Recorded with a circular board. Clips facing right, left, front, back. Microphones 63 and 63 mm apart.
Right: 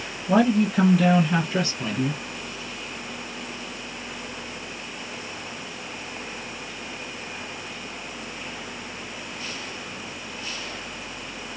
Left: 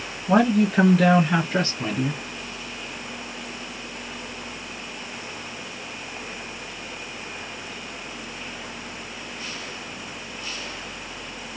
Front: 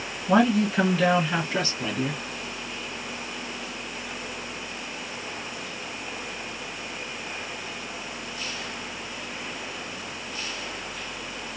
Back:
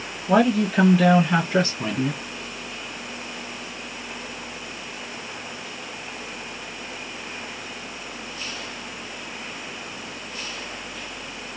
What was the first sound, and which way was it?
A man speaking, 100° left.